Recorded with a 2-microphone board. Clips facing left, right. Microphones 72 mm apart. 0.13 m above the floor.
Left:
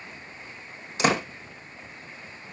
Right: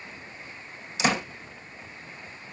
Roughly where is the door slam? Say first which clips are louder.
Left 2 dB; left.